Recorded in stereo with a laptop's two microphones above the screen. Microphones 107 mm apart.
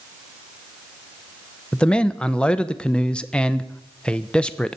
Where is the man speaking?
10° left (ahead or behind), 0.7 m.